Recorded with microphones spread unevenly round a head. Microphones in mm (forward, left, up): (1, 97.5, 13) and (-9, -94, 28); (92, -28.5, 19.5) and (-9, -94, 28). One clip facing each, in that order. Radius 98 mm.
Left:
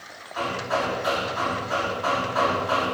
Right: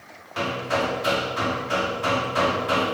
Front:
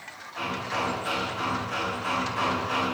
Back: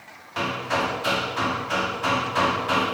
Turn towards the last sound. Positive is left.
turn(degrees=-150)